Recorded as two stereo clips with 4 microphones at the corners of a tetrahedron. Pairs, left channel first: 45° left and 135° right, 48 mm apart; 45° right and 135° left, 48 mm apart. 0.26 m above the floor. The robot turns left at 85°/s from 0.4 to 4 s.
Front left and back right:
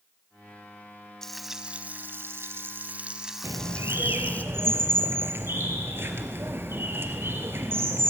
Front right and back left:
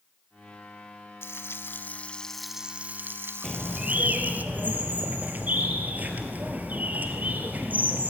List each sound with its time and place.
1.2 s frying: 30° right, 1.0 m; by 4.4 s 90° left, 1.0 m
3.4 s a bird: 125° right, 1.9 m; by 8.1 s 170° right, 1.9 m